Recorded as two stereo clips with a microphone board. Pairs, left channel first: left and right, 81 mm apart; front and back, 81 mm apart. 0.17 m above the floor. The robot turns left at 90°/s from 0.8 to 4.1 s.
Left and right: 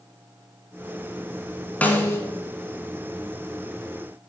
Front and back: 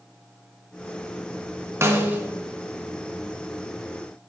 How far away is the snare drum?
About 1.0 m.